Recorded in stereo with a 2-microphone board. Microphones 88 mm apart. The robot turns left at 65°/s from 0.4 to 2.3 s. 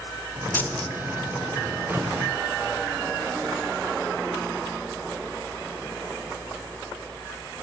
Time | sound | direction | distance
0.5 | a dropped coin | 20° left (ahead or behind) | 1.4 m